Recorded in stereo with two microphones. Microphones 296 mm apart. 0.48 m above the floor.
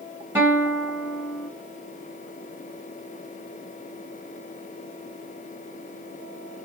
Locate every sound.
0.3 s a guitar: 5° right (ahead or behind), 2 m